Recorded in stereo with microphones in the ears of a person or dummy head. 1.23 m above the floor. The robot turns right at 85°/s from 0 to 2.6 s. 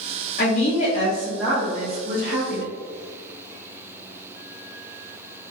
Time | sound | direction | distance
0.4 | a woman speaking | 85° left | 0.7 m